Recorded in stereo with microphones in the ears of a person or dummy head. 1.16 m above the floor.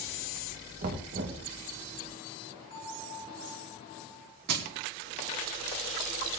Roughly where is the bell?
Left.